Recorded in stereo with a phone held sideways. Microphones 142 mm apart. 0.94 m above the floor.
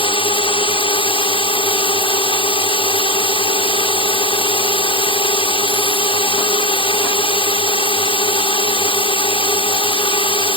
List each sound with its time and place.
0.0 s a drone: 40° left (ahead or behind)